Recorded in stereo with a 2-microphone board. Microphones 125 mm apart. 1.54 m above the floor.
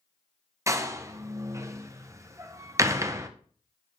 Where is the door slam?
25° right (ahead or behind), 0.6 m.